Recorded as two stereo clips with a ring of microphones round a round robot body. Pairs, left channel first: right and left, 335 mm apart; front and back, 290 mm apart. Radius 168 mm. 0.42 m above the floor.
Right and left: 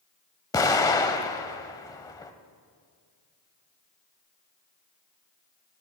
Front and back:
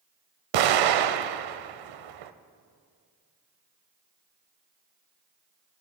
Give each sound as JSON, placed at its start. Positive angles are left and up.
{"t": 0.5, "sound": "an explosion", "azimuth_deg": -170, "distance_m": 0.6}